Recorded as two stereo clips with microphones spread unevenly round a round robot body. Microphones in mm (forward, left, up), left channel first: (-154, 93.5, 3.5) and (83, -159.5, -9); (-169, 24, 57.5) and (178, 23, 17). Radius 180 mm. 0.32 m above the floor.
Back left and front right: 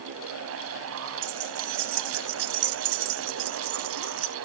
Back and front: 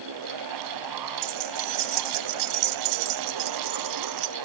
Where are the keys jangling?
20° right.